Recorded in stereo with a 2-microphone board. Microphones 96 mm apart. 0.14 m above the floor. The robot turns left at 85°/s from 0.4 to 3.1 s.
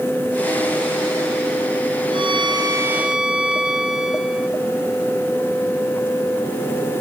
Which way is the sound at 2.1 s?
85° right.